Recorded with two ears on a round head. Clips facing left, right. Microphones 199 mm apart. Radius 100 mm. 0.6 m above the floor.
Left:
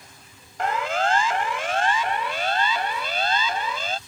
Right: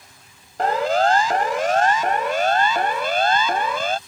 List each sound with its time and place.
0.6 s a siren: 35° right (ahead or behind); by 4.0 s 50° right (ahead or behind)